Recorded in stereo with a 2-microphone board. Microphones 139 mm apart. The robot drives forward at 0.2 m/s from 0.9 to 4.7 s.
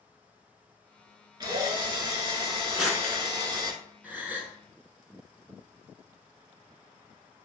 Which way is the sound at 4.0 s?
10° right (ahead or behind).